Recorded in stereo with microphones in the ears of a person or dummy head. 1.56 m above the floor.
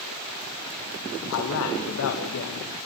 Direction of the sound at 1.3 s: 85° left.